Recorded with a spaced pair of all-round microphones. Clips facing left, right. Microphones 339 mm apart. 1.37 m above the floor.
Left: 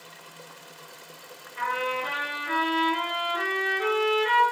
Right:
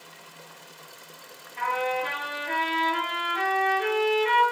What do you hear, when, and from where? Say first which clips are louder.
1.6 s a trumpet: right 3 dB; 15° left (ahead or behind), 1.5 m